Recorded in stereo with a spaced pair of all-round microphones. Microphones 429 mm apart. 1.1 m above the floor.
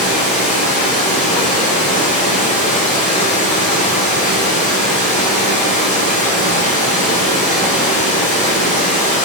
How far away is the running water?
About 1.1 m.